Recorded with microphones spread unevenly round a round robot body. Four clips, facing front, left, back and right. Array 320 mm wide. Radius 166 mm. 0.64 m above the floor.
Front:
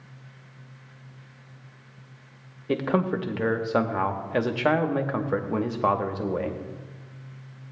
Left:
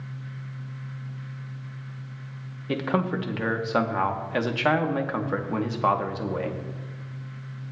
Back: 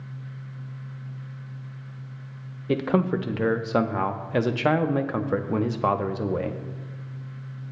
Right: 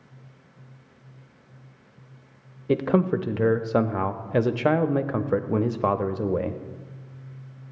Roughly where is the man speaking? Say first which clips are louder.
Right 4 dB, back 1 dB; right.